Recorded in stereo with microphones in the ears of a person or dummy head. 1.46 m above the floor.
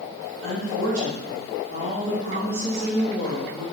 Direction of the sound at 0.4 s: 75° right (ahead or behind).